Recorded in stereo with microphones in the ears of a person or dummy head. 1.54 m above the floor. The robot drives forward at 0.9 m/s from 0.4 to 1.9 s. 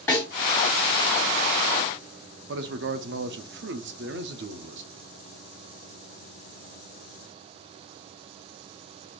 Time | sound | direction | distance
0.1 | a snare drum | 15° left (ahead or behind) | 2 m
2.5 | a man speaking | 55° right (ahead or behind) | 0.6 m